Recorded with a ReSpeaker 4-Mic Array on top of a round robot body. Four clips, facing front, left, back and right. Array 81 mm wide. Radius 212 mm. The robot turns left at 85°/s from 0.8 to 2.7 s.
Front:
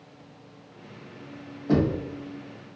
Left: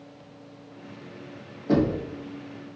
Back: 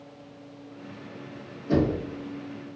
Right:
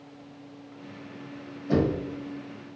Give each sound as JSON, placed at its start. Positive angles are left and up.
{"t": 1.7, "sound": "knocking", "azimuth_deg": 40, "distance_m": 1.3}